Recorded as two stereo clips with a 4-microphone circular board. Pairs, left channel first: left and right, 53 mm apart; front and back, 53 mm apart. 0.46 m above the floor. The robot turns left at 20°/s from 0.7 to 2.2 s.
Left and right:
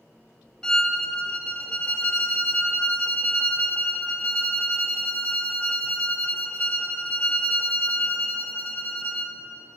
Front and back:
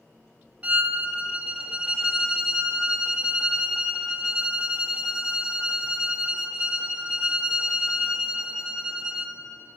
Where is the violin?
150° left, 0.7 m; by 9.4 s 120° left, 0.7 m.